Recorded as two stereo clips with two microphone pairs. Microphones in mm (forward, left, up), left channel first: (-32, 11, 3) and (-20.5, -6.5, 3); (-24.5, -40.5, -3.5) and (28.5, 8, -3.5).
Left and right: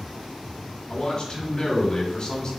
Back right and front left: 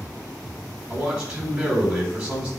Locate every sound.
0.9 s a man speaking: 115° left, 1.1 m